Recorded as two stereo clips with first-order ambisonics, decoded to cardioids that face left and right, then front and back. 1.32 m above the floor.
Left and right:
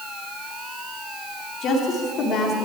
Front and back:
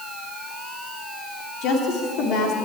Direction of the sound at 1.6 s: 35° left.